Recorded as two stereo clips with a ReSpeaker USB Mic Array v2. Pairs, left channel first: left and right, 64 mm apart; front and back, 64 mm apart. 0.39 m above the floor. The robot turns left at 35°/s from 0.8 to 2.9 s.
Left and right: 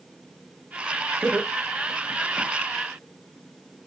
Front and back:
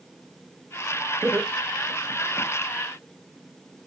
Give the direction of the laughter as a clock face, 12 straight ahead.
5 o'clock.